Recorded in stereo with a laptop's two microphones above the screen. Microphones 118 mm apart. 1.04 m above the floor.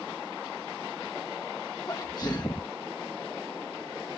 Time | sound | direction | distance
1.9 | a sneeze | 35° left (ahead or behind) | ?